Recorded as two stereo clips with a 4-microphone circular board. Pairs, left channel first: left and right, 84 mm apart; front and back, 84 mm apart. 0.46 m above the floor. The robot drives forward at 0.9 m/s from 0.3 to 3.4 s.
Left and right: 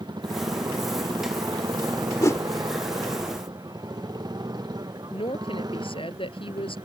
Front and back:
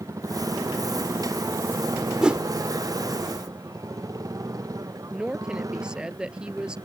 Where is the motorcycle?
125° right; by 6.9 s 130° right.